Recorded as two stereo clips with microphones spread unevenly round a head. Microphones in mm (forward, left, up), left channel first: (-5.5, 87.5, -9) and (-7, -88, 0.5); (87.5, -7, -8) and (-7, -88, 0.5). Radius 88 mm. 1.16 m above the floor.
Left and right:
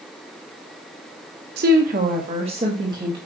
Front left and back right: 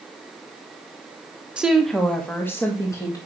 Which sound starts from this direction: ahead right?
A woman speaking, at 1.6 s.